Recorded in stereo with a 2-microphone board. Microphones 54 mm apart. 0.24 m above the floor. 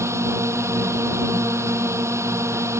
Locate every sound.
0.0 s a drone: 65° right (ahead or behind)